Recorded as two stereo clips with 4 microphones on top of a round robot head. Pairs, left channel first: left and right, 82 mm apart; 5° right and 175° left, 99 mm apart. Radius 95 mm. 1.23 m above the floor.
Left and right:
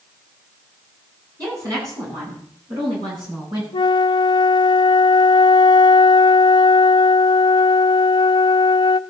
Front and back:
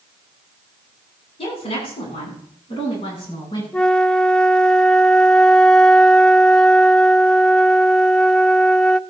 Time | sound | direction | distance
1.4 | a woman speaking | 35° right | 10 m
3.7 | a flute | 80° left | 0.5 m